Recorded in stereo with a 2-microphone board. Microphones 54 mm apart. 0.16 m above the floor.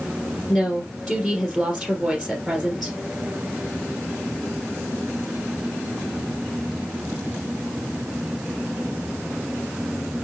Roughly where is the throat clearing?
I don't hear throat clearing.